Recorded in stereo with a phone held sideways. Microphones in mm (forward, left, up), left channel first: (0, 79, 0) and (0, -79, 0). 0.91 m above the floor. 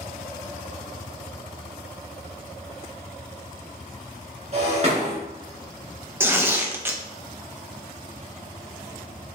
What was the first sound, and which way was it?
Breaking glass, 45° right (ahead or behind).